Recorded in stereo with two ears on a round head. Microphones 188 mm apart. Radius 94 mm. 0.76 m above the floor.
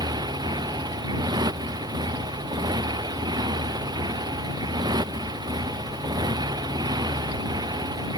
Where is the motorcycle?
20° right (ahead or behind).